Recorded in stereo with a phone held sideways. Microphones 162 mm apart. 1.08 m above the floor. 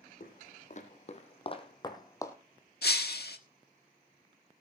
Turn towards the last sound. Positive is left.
turn(degrees=85)